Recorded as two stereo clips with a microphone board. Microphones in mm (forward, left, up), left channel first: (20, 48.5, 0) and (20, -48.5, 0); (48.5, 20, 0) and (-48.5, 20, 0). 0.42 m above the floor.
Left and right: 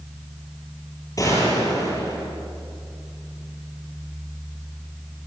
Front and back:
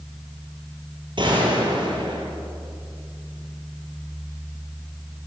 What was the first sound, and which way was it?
A gunshot, 145° left.